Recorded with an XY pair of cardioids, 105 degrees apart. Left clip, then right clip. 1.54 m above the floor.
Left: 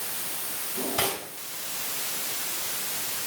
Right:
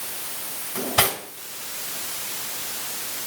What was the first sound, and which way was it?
Cutlery clinking, 60° right.